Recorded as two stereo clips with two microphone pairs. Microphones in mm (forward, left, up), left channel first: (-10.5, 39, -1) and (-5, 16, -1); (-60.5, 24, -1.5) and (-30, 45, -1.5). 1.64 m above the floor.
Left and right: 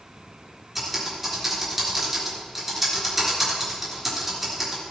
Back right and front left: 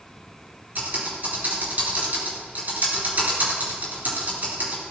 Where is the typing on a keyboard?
5° left, 3.5 m.